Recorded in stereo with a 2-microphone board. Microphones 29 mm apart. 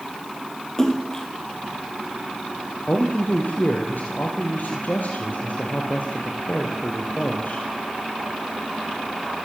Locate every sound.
0.8 s a splash: 15° left (ahead or behind), 3 m
2.9 s a man speaking: 75° left (ahead or behind), 4 m